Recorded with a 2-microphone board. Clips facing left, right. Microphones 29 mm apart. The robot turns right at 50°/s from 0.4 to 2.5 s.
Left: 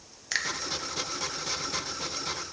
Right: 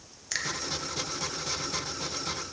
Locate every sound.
0.3 s a finger snap: 20° left (ahead or behind), 0.7 m